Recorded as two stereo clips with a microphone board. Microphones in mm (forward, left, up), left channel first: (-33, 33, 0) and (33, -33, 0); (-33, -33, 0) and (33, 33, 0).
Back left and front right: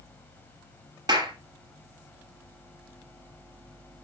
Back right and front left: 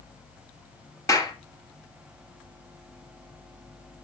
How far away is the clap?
About 2 m.